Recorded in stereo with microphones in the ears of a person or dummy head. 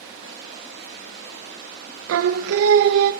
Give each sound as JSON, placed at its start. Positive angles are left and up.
{"t": 0.0, "sound": "running water", "side_deg": -60, "distance_m": 8.5}
{"t": 2.1, "sound": "singing", "side_deg": -80, "distance_m": 0.6}